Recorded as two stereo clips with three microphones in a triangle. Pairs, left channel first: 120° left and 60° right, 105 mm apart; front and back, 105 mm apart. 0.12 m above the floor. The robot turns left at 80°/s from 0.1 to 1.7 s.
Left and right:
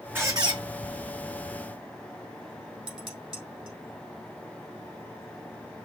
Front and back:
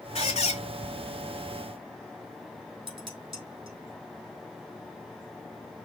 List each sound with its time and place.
0.1 s a squeak: 15° left, 0.6 m; by 0.6 s 25° right, 0.6 m
2.9 s dishes clattering: 145° right, 3 m